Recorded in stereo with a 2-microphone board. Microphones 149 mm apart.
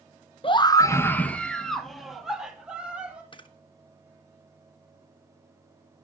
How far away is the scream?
About 0.8 m.